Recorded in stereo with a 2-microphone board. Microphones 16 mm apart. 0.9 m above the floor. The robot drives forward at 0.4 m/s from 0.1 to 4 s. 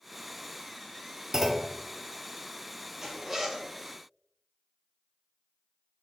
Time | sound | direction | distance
1.3 | a clunk | 20° right (ahead or behind) | 0.6 m
3.0 | a zipper | 25° right (ahead or behind) | 1.0 m